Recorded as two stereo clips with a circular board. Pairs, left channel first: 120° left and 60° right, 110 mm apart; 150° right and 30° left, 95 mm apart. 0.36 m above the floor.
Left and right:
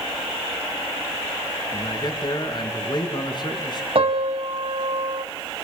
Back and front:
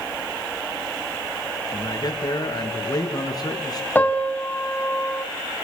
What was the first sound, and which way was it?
A man speaking, 165° left.